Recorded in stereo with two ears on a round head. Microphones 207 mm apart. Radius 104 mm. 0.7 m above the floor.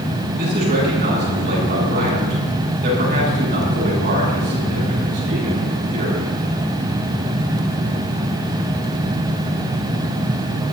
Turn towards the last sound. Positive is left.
turn(degrees=-45)  # may be behind; listen again after turning